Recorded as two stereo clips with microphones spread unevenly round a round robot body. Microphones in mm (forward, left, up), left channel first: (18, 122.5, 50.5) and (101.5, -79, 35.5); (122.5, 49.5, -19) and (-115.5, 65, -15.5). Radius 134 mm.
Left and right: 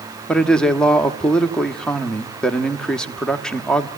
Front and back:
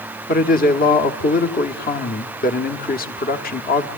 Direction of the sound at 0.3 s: 25° left.